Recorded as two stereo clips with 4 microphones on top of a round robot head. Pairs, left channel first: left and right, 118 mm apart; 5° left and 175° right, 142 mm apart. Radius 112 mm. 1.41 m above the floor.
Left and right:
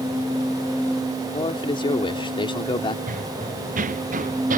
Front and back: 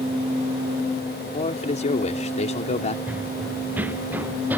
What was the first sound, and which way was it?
A man speaking, 45° left.